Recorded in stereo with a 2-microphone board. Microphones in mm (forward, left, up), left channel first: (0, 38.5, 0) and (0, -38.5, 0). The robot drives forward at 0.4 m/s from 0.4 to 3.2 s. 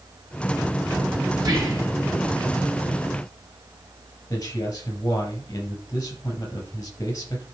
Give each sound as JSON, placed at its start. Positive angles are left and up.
{"t": 1.4, "sound": "whispering", "side_deg": -60, "distance_m": 2.0}
{"t": 4.3, "sound": "a man speaking", "side_deg": 45, "distance_m": 6.5}